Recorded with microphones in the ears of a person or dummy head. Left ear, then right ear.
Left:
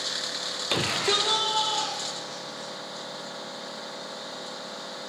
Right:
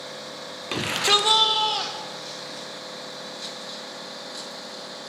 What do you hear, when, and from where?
0.7 s a shout: 10° left (ahead or behind), 0.6 m; by 2.7 s 75° right (ahead or behind), 2 m